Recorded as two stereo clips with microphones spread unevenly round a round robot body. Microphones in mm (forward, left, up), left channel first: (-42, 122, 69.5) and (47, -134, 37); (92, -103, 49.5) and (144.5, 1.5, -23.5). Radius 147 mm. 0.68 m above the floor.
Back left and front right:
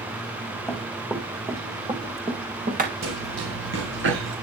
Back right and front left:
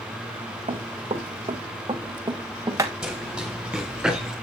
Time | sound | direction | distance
0.7 | running footsteps | 20° left | 3 m
3.0 | running footsteps | 25° right | 7 m